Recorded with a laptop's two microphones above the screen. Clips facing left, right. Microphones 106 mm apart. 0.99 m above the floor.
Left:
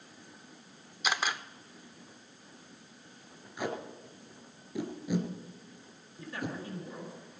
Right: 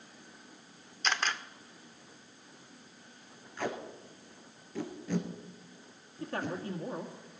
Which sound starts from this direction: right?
A man speaking, at 6.2 s.